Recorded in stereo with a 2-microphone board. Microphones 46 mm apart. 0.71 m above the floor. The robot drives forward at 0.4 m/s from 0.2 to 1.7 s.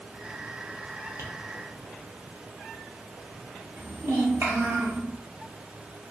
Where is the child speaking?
55° right (ahead or behind), 1.0 m.